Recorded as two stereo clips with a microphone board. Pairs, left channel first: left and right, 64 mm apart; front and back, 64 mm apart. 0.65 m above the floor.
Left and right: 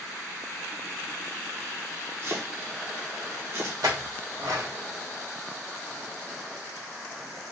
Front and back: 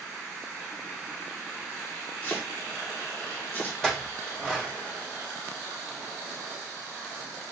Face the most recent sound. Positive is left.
turn(degrees=-85)